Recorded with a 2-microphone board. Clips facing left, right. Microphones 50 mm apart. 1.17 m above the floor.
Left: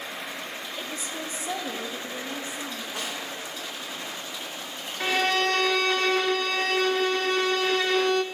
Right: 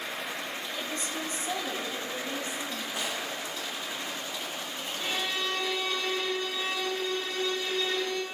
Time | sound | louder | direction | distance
0.8 | a woman speaking | even | 10° left (ahead or behind) | 1.0 m
3.0 | a snare drum | even | 65° left (ahead or behind) | 4.5 m
5.0 | a violin | left 9 dB | 85° left | 0.7 m